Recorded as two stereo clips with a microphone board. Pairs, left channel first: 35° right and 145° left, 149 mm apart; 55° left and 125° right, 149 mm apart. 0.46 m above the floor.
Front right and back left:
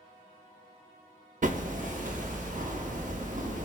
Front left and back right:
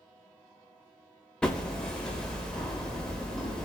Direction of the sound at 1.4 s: 140° left.